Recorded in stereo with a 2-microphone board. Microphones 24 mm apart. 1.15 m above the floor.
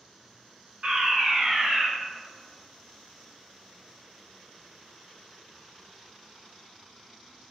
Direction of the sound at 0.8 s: 50° right (ahead or behind).